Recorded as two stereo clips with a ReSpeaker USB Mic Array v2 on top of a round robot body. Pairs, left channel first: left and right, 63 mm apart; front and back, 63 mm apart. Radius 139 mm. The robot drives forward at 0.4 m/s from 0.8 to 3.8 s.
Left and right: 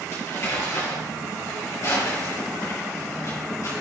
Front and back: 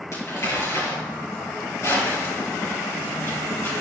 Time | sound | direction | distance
0.1 | crumpling | 45° left | 5.5 m